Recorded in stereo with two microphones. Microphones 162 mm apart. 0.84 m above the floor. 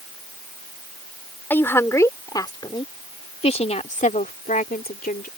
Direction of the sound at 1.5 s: 10° left (ahead or behind).